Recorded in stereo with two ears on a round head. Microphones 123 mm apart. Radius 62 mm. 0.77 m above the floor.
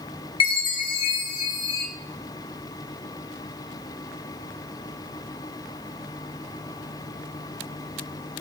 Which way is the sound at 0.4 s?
35° left (ahead or behind).